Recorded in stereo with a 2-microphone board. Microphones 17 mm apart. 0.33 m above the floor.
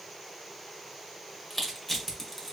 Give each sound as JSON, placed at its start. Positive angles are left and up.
{"t": 1.5, "sound": "crushing", "side_deg": 25, "distance_m": 1.2}